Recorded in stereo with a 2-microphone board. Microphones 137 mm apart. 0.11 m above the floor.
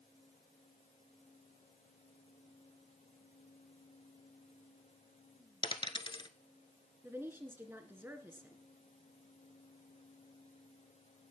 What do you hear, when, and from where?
5.6 s a dropped coin: 35° left (ahead or behind), 0.8 m
7.0 s a woman speaking: 15° right (ahead or behind), 1.6 m